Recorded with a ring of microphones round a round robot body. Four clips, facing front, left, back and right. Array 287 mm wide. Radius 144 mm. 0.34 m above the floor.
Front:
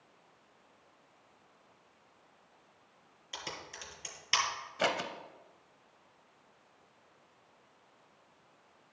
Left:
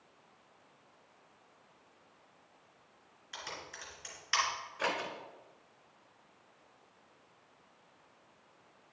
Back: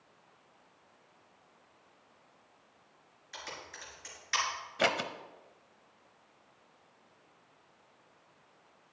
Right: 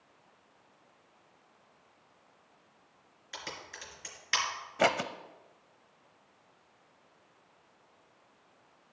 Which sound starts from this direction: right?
Scissors, at 4.8 s.